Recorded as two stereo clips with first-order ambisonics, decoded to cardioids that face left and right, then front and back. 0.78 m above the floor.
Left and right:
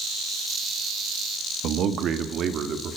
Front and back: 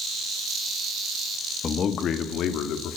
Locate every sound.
1.6 s a man speaking: 60° right, 1.5 m; by 3.0 s 35° right, 2.5 m